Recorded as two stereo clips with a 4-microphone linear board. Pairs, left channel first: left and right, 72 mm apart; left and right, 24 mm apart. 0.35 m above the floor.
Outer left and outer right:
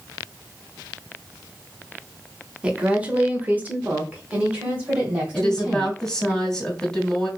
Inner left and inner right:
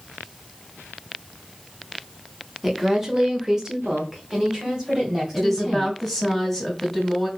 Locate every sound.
2.6 s a woman speaking: 15° right (ahead or behind), 0.9 m
5.3 s a woman speaking: 10° left (ahead or behind), 1.3 m